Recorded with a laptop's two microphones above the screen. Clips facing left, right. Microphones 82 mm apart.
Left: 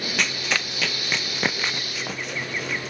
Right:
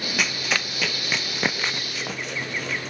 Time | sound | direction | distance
0.2 | running footsteps | 5° right (ahead or behind) | ?